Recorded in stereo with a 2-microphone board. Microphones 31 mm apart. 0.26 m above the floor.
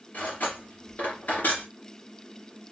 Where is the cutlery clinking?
70° left (ahead or behind), 2.5 m.